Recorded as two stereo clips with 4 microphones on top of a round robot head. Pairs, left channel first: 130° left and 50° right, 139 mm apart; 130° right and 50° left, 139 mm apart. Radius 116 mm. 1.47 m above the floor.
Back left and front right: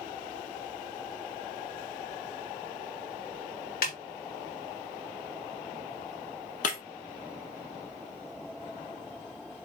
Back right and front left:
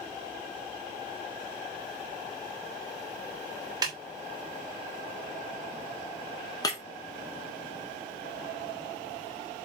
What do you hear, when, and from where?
3.8 s a snare drum: 110° left, 3 m
6.6 s breaking glass: 165° left, 1.5 m